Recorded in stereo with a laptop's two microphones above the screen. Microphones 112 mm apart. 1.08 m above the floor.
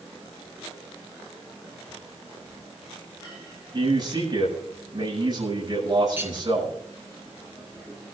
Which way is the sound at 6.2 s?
15° right (ahead or behind).